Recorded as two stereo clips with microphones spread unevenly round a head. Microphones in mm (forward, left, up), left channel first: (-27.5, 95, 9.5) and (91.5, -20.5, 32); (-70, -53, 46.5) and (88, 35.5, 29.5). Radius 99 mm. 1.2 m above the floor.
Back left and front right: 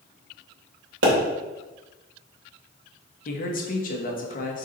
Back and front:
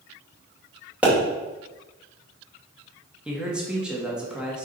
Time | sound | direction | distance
1.0 | a pop | 55° right | 2.5 m
3.2 | a man speaking | 110° left | 1.5 m